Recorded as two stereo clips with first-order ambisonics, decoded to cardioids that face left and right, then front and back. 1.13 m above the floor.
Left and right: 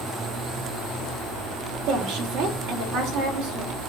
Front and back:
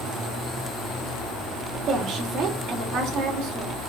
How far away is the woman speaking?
About 3 m.